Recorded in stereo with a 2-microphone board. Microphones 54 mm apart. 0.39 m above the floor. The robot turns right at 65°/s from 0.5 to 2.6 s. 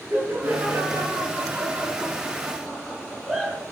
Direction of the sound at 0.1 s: 35° right (ahead or behind).